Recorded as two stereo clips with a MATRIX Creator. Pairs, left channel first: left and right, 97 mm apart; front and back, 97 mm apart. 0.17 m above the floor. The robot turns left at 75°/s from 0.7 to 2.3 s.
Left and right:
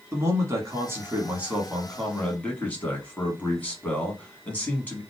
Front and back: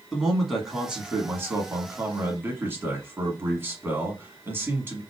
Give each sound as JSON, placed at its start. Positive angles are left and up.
{"t": 0.1, "sound": "a man speaking", "azimuth_deg": -95, "distance_m": 1.2}